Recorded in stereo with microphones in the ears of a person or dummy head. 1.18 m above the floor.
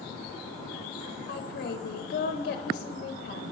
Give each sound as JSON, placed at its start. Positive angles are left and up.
{"t": 1.3, "sound": "a woman speaking", "side_deg": 45, "distance_m": 0.6}